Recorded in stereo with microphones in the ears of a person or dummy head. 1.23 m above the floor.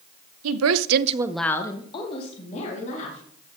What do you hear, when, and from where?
0.4 s a woman speaking: 80° right, 0.9 m; by 3.2 s 40° left (ahead or behind), 2.5 m